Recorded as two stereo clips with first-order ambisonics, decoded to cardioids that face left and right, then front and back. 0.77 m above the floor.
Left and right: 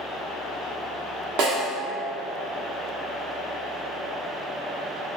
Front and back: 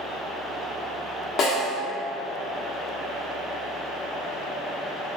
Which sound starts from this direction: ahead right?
A snare drum, at 1.4 s.